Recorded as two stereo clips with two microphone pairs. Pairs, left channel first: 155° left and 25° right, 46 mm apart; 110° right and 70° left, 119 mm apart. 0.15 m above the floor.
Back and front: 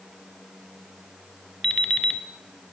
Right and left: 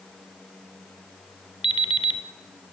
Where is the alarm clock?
135° right, 0.9 m.